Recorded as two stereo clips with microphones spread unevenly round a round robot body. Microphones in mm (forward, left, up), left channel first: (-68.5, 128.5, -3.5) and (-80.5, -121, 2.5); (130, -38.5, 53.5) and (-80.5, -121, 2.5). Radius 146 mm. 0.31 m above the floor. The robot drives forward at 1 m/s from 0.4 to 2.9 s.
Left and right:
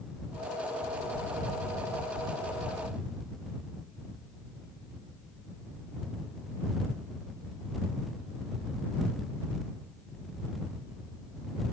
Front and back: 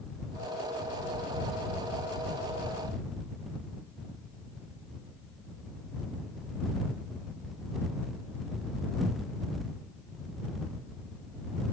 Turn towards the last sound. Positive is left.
No sound to turn to.